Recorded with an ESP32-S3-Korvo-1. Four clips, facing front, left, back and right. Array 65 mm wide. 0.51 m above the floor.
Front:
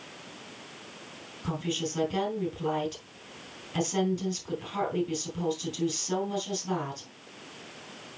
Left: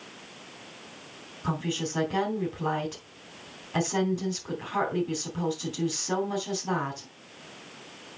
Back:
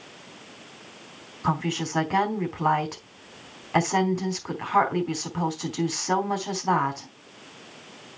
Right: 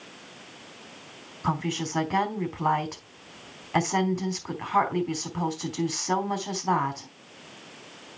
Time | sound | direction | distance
1.4 | a woman speaking | 155° right | 3.5 m